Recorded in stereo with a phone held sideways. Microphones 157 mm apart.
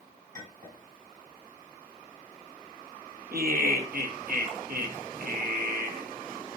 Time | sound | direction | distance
0.3 | a clink | 55° right (ahead or behind) | 5 m
3.3 | laughter | 70° right (ahead or behind) | 1.9 m